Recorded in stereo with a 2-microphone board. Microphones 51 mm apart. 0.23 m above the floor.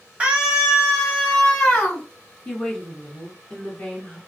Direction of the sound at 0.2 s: 20° right (ahead or behind).